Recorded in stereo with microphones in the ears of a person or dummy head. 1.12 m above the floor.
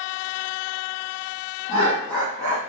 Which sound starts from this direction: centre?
Laughter, at 1.7 s.